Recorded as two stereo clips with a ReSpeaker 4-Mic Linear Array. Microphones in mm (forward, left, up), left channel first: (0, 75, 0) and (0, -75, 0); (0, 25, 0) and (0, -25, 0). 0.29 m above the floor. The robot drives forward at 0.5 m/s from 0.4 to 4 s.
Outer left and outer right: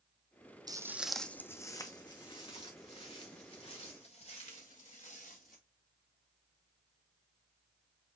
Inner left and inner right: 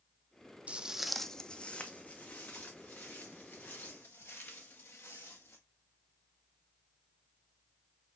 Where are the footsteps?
25° right (ahead or behind), 0.5 m; by 5.6 s 60° left (ahead or behind), 3 m.